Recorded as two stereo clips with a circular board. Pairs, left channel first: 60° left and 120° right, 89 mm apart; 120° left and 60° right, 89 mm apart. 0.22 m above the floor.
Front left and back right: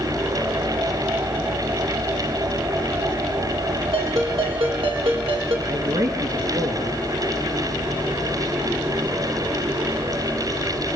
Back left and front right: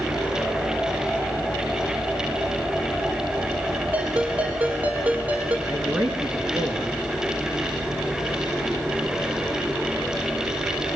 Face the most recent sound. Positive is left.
turn(degrees=-130)